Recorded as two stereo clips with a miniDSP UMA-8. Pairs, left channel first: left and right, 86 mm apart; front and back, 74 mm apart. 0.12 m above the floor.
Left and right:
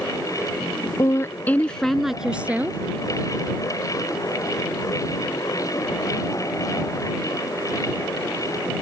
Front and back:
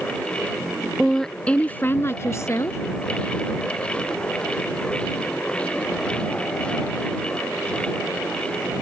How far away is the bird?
No bird in this recording.